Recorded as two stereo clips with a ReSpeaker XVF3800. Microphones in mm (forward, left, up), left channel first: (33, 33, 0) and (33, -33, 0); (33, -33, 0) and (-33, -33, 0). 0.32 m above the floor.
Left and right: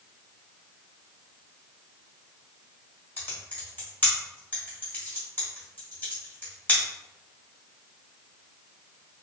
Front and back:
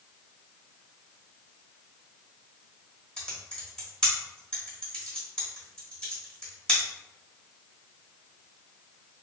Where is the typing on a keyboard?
65° left, 1.2 m.